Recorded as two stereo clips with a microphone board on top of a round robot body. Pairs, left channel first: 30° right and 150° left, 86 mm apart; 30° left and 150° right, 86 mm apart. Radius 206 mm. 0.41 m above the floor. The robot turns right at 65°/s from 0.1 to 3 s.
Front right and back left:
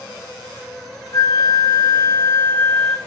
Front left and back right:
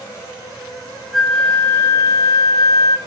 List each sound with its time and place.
1.1 s a flute: 60° right, 0.9 m; by 3.0 s 60° left, 0.9 m